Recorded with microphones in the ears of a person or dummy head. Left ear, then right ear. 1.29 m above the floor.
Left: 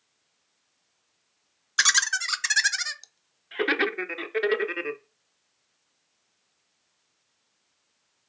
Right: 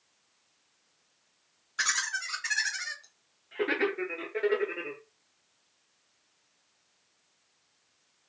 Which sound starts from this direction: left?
Laughter, at 1.8 s.